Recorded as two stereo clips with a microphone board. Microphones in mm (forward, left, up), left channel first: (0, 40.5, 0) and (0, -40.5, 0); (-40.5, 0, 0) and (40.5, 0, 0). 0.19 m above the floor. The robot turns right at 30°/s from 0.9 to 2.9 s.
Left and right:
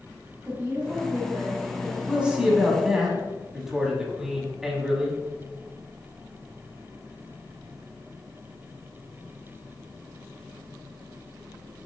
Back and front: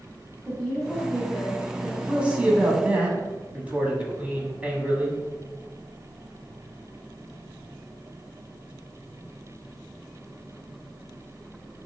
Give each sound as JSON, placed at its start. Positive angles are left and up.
{"t": 0.5, "sound": "a woman speaking", "azimuth_deg": -110, "distance_m": 1.4}
{"t": 2.1, "sound": "a man speaking", "azimuth_deg": -45, "distance_m": 1.0}